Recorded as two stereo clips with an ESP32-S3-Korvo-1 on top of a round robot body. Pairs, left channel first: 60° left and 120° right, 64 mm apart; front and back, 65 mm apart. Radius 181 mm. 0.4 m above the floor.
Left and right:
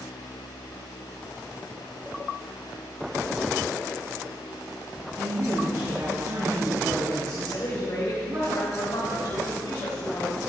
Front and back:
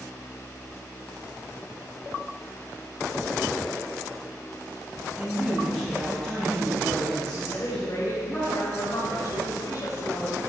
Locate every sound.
5.2 s a woman speaking: 80° right, 5.5 m
7.5 s a woman speaking: 35° left, 4 m